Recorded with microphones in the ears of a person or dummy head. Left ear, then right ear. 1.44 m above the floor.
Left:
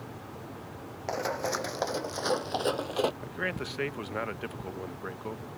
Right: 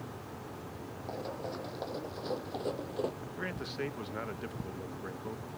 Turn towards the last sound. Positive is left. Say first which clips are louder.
# left 6 dB
turn(degrees=25)  # may be behind; listen again after turning